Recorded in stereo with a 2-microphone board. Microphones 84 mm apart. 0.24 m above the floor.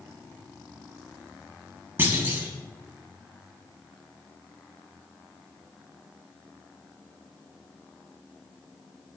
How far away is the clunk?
About 0.7 m.